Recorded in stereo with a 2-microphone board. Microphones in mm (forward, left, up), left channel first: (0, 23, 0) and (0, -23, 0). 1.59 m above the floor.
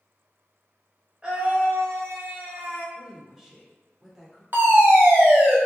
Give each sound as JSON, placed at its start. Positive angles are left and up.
{"t": 1.2, "sound": "a scream", "side_deg": -25, "distance_m": 1.1}
{"t": 3.0, "sound": "a woman speaking", "side_deg": -10, "distance_m": 1.3}
{"t": 4.5, "sound": "a fire alarm", "side_deg": -55, "distance_m": 0.9}